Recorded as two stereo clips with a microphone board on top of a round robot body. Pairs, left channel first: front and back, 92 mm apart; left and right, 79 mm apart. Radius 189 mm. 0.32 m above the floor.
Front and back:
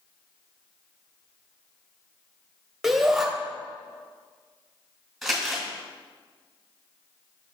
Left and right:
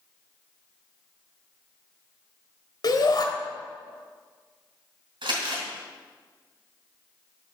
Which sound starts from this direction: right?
Crumpling, at 5.2 s.